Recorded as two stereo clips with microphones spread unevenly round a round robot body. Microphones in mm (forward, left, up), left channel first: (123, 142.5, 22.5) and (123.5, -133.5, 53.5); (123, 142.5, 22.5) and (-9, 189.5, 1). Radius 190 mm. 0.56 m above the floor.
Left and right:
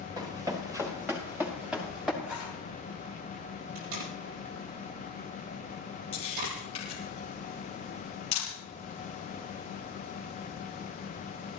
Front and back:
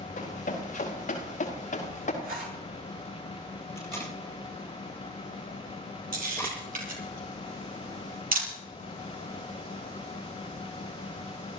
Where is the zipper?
Straight behind, 4 m.